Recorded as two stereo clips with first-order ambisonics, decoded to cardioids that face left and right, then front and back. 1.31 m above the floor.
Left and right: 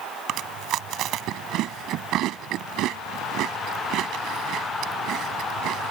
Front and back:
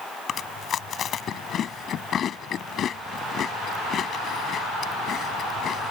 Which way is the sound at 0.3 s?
55° right.